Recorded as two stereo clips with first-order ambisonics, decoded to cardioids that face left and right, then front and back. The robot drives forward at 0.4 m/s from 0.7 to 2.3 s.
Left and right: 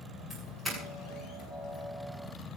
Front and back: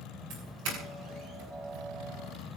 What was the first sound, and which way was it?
A doorbell, 175° right.